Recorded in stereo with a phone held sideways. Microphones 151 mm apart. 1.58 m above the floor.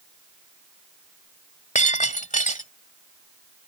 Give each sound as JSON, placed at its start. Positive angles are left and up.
{"t": 1.8, "sound": "breaking glass", "side_deg": 55}